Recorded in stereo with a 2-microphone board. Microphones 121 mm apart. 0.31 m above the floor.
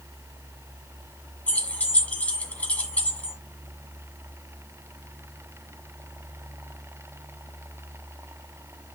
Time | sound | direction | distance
1.5 | keys jangling | 15° left (ahead or behind) | 1.9 m